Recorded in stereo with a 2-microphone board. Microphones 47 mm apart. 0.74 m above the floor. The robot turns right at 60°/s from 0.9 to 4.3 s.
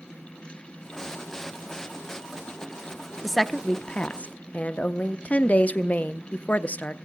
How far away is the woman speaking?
About 0.5 m.